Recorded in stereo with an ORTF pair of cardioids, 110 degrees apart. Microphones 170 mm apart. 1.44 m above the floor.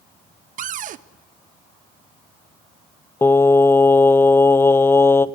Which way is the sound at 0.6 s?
50° right.